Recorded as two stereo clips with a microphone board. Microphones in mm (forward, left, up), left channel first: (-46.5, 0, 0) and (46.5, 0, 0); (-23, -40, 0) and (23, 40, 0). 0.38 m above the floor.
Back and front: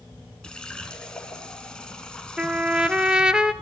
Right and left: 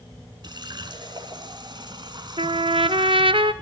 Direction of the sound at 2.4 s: 80° left.